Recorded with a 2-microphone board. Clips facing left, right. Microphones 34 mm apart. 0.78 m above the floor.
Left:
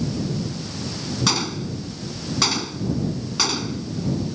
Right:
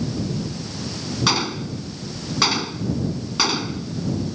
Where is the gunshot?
15° right (ahead or behind).